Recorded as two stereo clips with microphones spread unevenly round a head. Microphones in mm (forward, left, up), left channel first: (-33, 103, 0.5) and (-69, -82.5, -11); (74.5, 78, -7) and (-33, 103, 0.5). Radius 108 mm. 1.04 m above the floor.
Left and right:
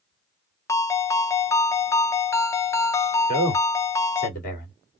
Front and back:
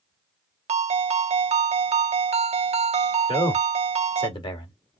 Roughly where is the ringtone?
Behind left.